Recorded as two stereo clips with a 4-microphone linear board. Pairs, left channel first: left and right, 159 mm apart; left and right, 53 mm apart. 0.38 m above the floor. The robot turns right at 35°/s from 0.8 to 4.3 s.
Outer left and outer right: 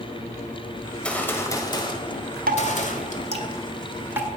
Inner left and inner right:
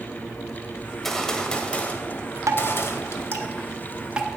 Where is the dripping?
75° right (ahead or behind), 1.0 m; by 4.3 s 10° right (ahead or behind), 1.0 m.